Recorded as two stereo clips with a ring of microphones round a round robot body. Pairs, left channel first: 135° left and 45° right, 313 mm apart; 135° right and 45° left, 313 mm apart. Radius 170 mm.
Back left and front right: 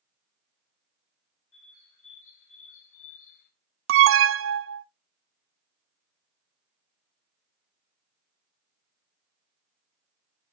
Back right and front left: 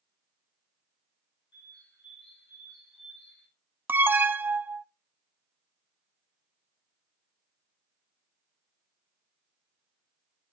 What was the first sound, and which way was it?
A bird, 165° left.